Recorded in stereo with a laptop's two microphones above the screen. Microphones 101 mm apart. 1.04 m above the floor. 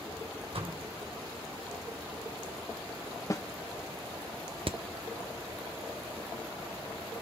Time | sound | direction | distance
0.5 | a door slam | 70° right (ahead or behind) | 3 m
3.3 | a snare drum | 30° left (ahead or behind) | 1.1 m
4.7 | hammering | 60° right (ahead or behind) | 0.8 m